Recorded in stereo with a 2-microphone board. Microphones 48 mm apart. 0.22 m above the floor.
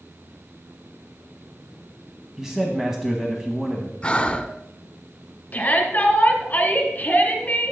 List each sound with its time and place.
2.4 s a man speaking: 10° right (ahead or behind), 1.3 m
4.0 s breathing: 20° left (ahead or behind), 0.6 m
5.5 s a shout: 35° left (ahead or behind), 1.6 m